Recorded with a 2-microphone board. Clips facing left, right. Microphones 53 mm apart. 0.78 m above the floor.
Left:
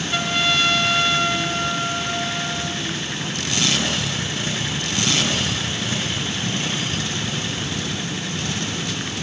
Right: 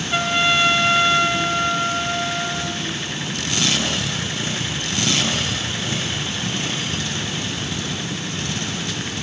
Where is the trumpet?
20° right (ahead or behind), 1.0 m.